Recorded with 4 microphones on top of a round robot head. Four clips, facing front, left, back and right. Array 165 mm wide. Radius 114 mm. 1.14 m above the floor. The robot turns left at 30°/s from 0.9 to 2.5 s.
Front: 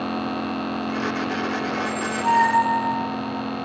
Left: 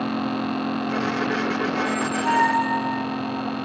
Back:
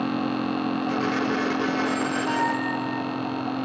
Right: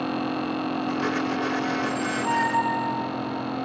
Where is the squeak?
50° left, 0.6 m; by 3.0 s 25° left, 0.6 m.